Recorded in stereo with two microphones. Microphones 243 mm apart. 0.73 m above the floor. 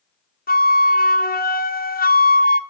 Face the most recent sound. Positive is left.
turn(degrees=40)  # may be behind; listen again after turning